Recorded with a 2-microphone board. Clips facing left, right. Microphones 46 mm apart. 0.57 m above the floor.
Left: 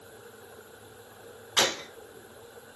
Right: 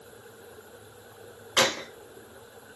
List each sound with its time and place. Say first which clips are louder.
1.6 s a gunshot: right 3 dB; 75° right (ahead or behind), 1.0 m